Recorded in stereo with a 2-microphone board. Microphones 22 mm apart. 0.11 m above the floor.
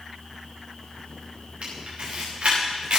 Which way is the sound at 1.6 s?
60° right (ahead or behind).